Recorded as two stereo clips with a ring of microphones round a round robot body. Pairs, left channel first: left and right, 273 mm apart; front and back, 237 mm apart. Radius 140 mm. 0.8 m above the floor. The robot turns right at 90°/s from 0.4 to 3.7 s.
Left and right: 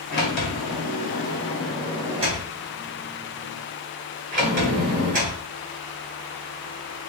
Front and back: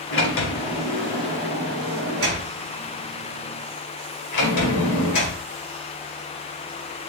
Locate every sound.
0.1 s a sliding door: 35° left, 1.9 m; by 5.4 s 25° right, 1.9 m